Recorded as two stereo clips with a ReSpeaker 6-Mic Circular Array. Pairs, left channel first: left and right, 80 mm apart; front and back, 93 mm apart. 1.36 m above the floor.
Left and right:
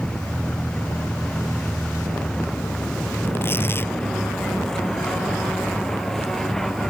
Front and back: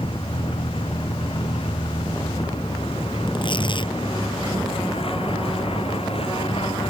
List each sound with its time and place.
0.0 s a vehicle: 10° left; by 6.9 s 5° left
3.3 s tearing paper: 30° left